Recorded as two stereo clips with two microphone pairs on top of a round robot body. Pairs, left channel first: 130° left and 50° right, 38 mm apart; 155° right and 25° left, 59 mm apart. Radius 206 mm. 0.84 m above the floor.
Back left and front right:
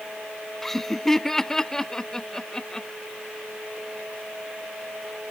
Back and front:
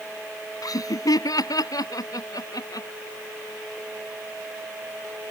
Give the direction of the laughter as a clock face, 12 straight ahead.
5 o'clock.